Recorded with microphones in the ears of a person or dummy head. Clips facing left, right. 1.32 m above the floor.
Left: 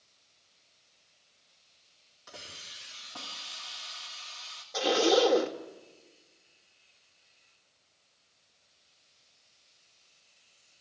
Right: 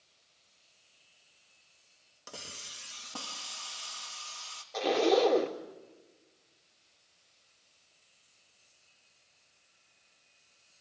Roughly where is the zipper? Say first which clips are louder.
Left 1 dB; centre.